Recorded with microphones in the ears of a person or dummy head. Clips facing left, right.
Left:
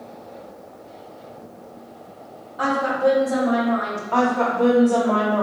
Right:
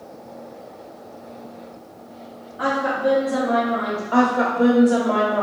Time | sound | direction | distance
2.6 | a woman speaking | 85° left | 1.5 m
4.1 | a woman speaking | 15° right (ahead or behind) | 0.9 m